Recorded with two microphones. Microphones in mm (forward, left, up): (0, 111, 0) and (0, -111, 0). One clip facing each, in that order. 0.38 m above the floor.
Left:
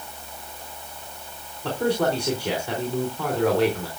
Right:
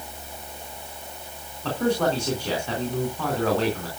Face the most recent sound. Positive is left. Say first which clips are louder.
# even
turn(degrees=10)  # may be behind; listen again after turning